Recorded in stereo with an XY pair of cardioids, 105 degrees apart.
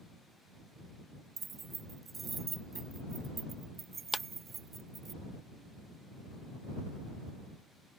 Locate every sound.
1.4 s keys jangling: 40° right
4.1 s a clap: 20° left